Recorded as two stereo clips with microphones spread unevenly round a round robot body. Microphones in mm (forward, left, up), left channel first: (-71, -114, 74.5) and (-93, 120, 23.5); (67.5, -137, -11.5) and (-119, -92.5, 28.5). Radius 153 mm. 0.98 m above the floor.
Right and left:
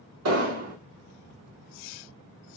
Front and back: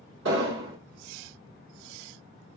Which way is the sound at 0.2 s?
115° left.